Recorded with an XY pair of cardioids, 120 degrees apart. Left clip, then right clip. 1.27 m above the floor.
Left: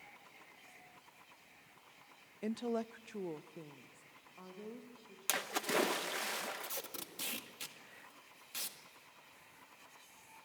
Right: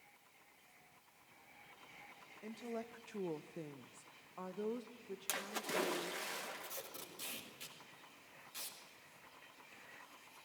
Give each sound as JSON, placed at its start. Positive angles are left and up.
{"t": 2.4, "sound": "a woman speaking", "azimuth_deg": 60, "distance_m": 0.6}
{"t": 5.3, "sound": "a splash", "azimuth_deg": 35, "distance_m": 1.1}
{"t": 6.6, "sound": "tape being pulled", "azimuth_deg": 50, "distance_m": 2.0}